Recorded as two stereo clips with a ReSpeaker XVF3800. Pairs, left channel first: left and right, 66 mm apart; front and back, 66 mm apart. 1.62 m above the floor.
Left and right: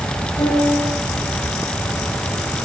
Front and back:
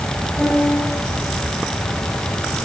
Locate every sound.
0.4 s a piano: 85° left, 8.5 m